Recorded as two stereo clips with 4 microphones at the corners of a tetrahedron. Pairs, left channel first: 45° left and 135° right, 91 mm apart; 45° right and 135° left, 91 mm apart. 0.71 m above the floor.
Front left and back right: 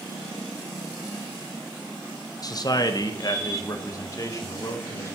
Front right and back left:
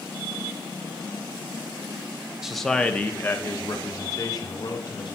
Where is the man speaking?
55° left, 0.7 m; by 5.2 s 10° right, 1.9 m.